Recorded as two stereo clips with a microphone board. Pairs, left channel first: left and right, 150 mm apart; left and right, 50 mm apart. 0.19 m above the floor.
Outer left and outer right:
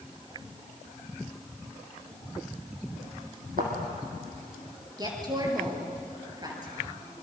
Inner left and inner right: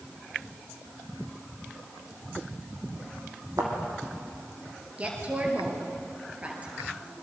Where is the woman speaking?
25° right (ahead or behind), 4.5 m.